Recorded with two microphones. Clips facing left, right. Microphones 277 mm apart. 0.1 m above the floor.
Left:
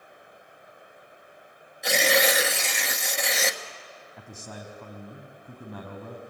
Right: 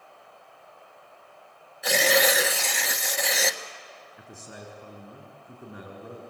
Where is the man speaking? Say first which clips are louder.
Left 2 dB; 75° left (ahead or behind), 5 m.